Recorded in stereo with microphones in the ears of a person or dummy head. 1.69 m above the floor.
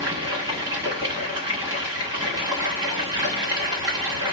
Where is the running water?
15° right (ahead or behind), 1.5 m.